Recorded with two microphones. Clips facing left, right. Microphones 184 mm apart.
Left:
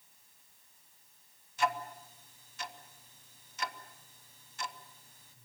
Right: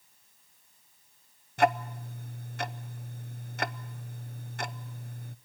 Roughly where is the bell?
I don't hear a bell.